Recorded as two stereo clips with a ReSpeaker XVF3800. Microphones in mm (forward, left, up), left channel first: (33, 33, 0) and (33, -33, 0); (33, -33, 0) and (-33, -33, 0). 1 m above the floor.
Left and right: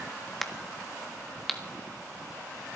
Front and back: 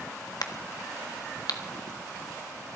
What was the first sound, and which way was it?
A crack, straight ahead.